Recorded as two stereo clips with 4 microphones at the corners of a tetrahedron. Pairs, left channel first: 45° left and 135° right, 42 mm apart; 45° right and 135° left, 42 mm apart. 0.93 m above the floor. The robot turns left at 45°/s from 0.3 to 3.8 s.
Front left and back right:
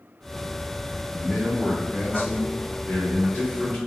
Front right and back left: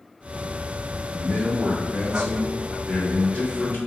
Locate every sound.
1.1 s a man speaking: 115° left, 1.8 m; by 3.8 s 5° right, 1.8 m